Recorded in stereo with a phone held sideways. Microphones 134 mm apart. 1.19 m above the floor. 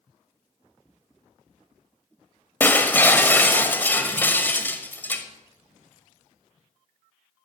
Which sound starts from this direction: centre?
Breaking glass, at 2.6 s.